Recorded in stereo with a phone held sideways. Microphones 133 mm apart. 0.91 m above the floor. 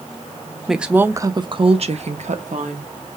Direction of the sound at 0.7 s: Centre (ahead or behind).